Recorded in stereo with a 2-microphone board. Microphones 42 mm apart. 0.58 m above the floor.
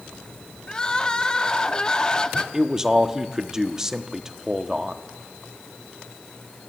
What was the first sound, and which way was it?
Crying, 20° left (ahead or behind).